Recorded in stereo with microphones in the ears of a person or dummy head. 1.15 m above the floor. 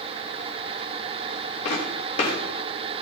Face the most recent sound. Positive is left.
turn(degrees=35)  # may be behind; listen again after turning